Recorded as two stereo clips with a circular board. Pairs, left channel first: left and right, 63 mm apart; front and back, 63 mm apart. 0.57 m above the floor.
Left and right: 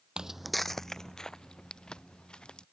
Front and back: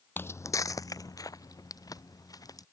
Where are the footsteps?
25° right; by 2.6 s 15° left.